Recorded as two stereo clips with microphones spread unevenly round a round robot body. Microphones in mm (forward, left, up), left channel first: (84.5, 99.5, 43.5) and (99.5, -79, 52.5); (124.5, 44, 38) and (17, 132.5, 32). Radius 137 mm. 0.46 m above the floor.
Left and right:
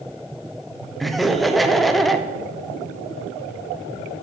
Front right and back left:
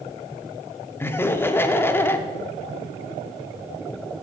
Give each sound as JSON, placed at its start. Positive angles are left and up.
{"t": 1.0, "sound": "laughter", "azimuth_deg": 15, "distance_m": 0.7}